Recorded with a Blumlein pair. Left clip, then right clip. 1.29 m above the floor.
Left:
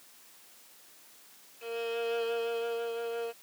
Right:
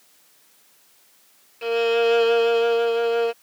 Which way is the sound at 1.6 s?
35° right.